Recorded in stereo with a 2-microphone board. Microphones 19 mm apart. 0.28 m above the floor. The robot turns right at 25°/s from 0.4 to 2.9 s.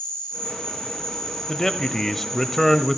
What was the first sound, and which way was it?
An insect, 130° left.